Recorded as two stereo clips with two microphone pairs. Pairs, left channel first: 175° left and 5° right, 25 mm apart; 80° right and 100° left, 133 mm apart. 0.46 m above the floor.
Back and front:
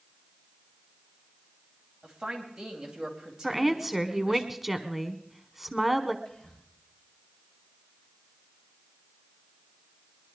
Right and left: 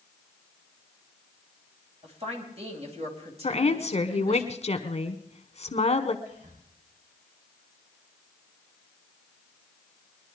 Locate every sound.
2.0 s a woman speaking: 65° left, 3 m
3.4 s a woman speaking: 90° right, 1.2 m
6.2 s whispering: 120° left, 4.5 m